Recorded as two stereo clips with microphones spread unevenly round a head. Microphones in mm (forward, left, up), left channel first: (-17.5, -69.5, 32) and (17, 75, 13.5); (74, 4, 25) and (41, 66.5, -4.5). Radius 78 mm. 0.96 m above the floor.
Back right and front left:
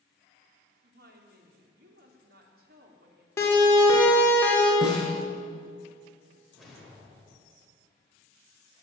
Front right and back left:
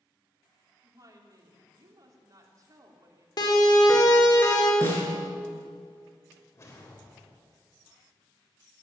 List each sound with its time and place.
0.8 s a woman speaking: 90° left, 3 m
3.4 s a siren: 30° right, 3.5 m; by 4.7 s 25° right, 4.5 m
4.8 s a snare drum: 10° right, 5.5 m
6.5 s a whoosh: 15° right, 3.5 m